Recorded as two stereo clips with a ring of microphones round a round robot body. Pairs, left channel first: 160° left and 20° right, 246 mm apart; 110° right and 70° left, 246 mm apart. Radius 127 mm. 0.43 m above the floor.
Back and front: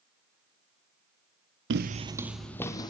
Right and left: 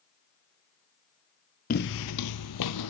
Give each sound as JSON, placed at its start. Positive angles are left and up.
{"t": 1.7, "sound": "footsteps", "azimuth_deg": -60, "distance_m": 0.6}